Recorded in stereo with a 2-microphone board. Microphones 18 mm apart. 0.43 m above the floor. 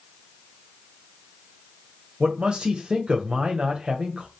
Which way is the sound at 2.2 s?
55° right (ahead or behind).